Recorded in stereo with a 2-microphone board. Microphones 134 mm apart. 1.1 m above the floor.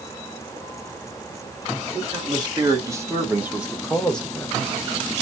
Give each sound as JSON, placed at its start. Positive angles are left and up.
{"t": 1.9, "sound": "a man speaking", "side_deg": -35, "distance_m": 2.0}